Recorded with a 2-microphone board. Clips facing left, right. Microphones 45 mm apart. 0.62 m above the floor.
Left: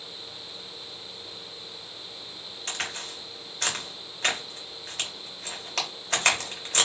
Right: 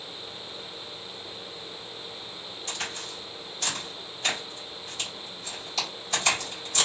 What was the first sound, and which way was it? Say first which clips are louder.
A crack: left 2 dB; 65° left (ahead or behind).